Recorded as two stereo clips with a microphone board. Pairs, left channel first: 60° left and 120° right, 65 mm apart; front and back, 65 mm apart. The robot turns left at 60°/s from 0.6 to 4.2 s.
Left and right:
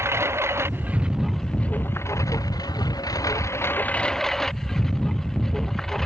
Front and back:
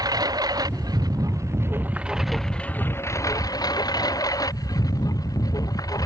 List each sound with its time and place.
0.0 s a lawn mower: 165° right; by 6.1 s 25° right